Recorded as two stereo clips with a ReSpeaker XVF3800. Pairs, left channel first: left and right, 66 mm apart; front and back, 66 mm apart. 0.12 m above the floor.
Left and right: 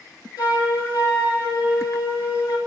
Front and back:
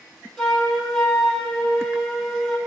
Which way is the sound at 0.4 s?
85° left.